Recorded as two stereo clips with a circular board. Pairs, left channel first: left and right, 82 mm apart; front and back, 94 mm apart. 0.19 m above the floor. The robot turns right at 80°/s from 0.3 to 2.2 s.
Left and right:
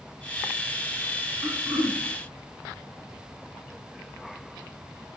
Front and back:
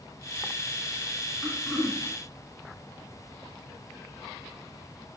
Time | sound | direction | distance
1.4 | throat clearing | 105° right | 0.8 m